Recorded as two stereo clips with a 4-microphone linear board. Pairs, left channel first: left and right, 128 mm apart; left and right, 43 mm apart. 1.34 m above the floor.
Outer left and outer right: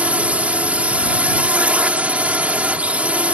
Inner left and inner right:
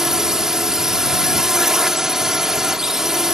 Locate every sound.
0.0 s a drone: 10° right (ahead or behind)